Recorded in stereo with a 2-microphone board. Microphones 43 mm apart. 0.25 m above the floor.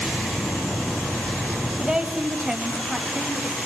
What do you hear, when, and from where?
1.8 s a woman speaking: 10° right (ahead or behind), 1.3 m; by 3.5 s 15° right (ahead or behind), 1.4 m